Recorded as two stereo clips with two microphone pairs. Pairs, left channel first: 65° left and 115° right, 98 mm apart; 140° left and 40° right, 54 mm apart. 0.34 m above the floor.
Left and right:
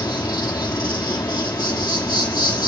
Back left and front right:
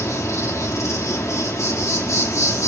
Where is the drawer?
No drawer in this recording.